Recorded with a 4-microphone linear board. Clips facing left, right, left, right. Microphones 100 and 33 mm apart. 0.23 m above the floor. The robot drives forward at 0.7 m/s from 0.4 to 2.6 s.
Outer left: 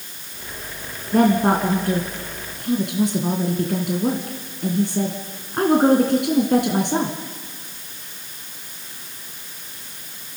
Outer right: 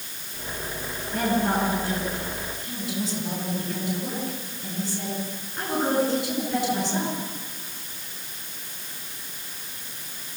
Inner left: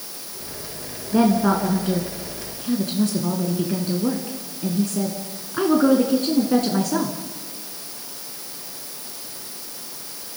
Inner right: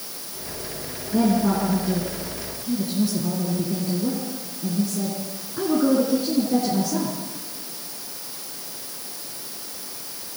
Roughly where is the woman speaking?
Left.